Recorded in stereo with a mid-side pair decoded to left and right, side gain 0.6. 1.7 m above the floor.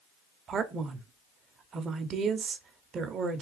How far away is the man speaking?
About 0.9 m.